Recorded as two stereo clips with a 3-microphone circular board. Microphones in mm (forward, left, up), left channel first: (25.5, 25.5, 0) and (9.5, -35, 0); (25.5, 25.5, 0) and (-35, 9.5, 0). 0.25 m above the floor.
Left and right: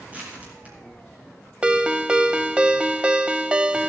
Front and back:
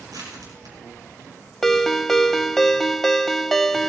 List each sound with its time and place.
0.1 s crushing: 175° right, 7.5 m
1.6 s a ringtone: 65° right, 0.5 m